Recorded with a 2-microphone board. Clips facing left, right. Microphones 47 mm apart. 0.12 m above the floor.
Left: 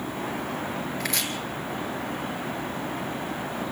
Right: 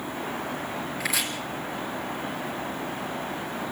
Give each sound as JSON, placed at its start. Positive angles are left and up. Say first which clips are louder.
{"t": 1.0, "sound": "chopping", "louder": "right 3 dB", "side_deg": -5, "distance_m": 2.5}